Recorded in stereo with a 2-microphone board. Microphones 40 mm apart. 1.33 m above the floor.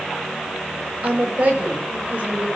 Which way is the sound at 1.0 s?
35° right (ahead or behind).